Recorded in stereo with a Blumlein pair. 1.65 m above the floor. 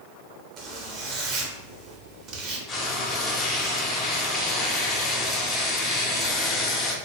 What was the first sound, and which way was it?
A zipper, 30° right.